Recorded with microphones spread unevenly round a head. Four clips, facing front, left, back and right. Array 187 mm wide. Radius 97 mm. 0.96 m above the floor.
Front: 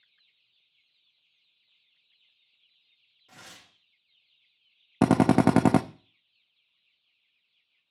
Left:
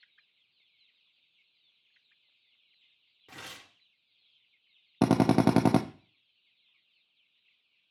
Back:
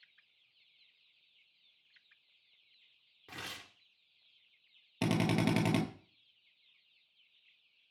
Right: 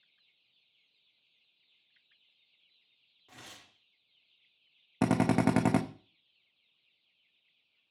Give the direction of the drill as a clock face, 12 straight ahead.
11 o'clock.